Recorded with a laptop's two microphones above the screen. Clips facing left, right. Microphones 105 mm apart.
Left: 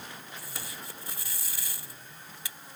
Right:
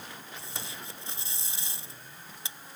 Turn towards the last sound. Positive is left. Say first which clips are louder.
# right 2 dB
turn(degrees=-25)  # may be behind; listen again after turning